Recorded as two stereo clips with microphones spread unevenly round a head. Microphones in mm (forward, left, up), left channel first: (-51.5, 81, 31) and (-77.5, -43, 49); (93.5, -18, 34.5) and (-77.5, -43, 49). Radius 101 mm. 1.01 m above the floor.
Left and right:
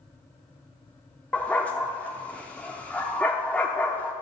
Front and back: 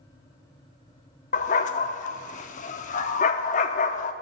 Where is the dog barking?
15° right, 0.6 m.